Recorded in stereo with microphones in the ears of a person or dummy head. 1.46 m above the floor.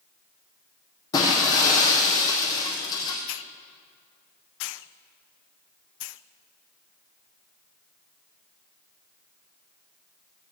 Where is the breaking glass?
20° left (ahead or behind), 4 m.